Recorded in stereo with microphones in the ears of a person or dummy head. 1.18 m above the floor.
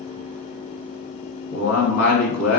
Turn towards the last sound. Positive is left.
turn(degrees=65)  # may be behind; listen again after turning